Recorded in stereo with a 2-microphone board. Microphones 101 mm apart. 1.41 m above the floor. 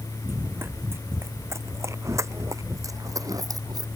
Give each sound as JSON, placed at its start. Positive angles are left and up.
{"t": 0.2, "sound": "running footsteps", "side_deg": -20}